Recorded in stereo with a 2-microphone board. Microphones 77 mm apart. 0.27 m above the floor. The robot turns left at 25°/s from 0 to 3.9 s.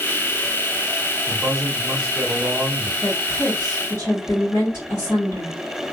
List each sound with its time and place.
1.3 s a man speaking: 20° right (ahead or behind), 0.9 m; by 2.9 s 10° right (ahead or behind), 0.9 m
3.0 s a woman speaking: 25° left (ahead or behind), 1.6 m; by 5.5 s 35° left (ahead or behind), 1.6 m